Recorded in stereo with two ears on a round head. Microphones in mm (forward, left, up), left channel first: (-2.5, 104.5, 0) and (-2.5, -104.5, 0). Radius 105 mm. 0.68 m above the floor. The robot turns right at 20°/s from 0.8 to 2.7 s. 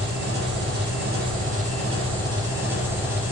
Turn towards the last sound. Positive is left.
turn(degrees=-10)